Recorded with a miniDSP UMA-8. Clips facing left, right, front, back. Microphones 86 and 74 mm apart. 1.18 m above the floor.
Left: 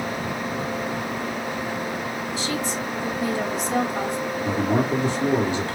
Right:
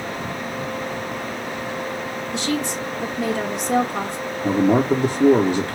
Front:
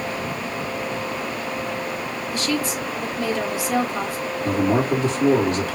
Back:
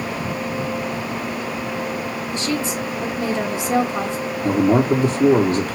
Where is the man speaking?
115° right, 1.1 m.